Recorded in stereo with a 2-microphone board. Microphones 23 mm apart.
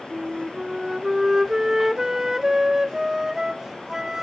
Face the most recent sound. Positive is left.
turn(degrees=-20)  # may be behind; listen again after turning